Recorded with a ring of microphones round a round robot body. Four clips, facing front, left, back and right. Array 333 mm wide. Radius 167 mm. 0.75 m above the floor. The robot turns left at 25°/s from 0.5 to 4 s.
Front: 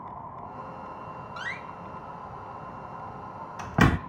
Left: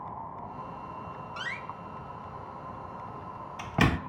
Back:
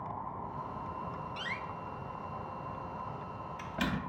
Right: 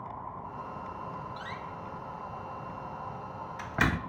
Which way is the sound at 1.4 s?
75° left.